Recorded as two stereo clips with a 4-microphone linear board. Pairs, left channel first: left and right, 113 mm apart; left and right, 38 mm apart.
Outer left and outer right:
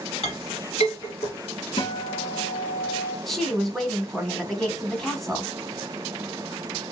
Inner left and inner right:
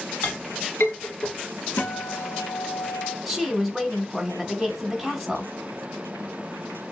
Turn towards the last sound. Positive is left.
turn(degrees=0)  # may be behind; listen again after turning